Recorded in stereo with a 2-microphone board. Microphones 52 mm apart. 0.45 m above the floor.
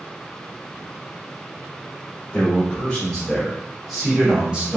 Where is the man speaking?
25° left (ahead or behind), 1.4 m; by 4.8 s 20° right (ahead or behind), 1.0 m.